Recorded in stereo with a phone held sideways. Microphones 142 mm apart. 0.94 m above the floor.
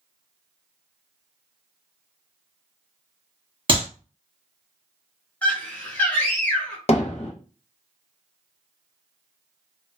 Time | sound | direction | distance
3.7 | a clap | 40° right (ahead or behind) | 1.1 m
5.4 | a scream | 10° left (ahead or behind) | 0.6 m
6.9 | hammering | 50° left (ahead or behind) | 0.7 m